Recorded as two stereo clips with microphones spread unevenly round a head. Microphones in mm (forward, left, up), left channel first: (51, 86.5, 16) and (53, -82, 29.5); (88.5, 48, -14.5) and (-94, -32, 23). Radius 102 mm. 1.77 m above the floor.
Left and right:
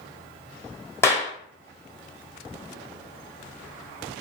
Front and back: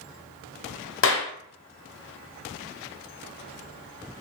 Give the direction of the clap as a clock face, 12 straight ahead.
12 o'clock.